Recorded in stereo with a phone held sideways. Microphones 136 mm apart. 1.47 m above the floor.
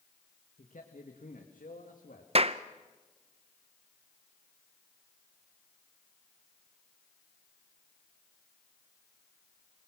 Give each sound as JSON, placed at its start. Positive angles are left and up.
{"t": 0.6, "sound": "a man speaking", "side_deg": 65, "distance_m": 1.7}
{"t": 2.4, "sound": "a clap", "side_deg": -45, "distance_m": 0.7}